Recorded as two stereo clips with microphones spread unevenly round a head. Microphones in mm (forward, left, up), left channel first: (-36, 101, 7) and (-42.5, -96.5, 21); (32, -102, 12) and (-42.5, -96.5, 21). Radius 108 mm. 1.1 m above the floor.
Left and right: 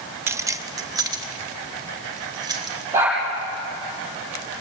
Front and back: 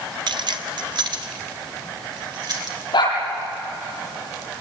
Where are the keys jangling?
170° right, 0.7 m; by 2.8 s 160° right, 3.5 m.